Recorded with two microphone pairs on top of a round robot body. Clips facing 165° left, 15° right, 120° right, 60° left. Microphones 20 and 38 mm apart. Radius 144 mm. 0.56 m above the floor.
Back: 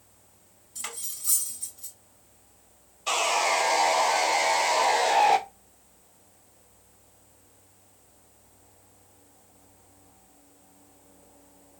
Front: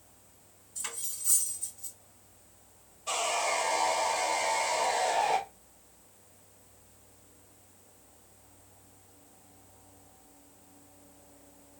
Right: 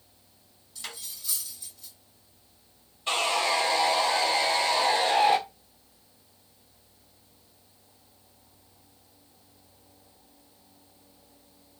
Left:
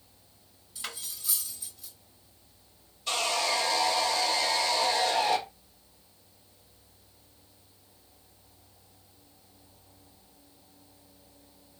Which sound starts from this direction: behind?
Sawing, at 3.1 s.